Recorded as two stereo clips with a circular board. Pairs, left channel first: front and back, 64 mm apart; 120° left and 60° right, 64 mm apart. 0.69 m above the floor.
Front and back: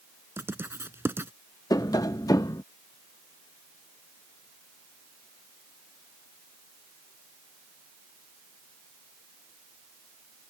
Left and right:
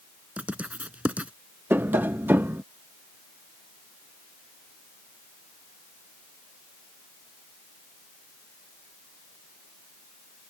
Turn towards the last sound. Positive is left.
turn(degrees=-5)